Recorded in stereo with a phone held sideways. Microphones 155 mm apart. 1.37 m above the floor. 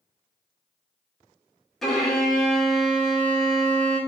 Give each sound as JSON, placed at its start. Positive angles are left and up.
{"t": 1.8, "sound": "a violin", "side_deg": 0, "distance_m": 0.9}